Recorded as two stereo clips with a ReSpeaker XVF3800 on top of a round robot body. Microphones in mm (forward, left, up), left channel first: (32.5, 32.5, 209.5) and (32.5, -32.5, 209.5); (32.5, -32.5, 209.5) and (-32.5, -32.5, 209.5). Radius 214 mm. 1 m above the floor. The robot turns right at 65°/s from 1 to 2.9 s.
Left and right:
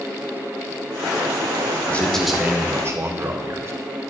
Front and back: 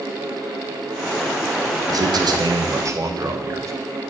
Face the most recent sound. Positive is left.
turn(degrees=-135)